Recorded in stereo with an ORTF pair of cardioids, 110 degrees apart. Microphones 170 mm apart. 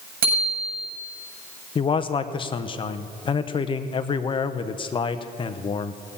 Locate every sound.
0.2 s a bicycle bell: 60° right, 6.5 m
1.8 s a man speaking: 30° left, 0.9 m